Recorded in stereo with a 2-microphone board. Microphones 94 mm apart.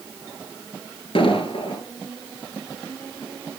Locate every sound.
1.1 s an explosion: 75° left (ahead or behind), 3 m